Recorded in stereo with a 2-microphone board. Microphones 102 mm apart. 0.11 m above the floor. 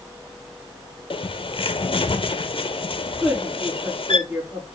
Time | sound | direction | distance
1.1 | a bird | 60° left (ahead or behind) | 0.7 m
3.2 | a woman speaking | 5° right (ahead or behind) | 6.5 m